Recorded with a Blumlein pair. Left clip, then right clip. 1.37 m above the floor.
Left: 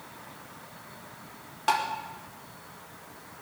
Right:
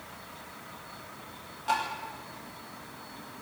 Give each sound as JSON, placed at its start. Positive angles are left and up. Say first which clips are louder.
{"t": 1.7, "sound": "tapping", "louder": "left 3 dB", "azimuth_deg": 30, "distance_m": 5.0}